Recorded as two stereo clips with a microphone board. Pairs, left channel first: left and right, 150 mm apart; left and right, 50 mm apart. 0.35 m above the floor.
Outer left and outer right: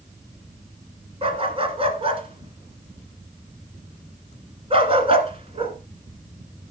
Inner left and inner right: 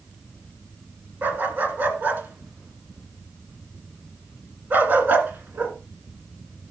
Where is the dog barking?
40° right (ahead or behind), 1.4 m.